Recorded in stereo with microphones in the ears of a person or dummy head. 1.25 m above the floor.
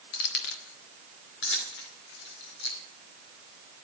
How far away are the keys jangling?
About 1.4 m.